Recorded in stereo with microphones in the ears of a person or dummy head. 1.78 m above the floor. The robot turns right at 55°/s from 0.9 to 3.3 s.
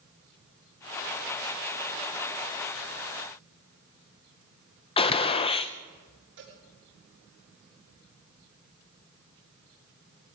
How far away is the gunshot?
About 0.8 m.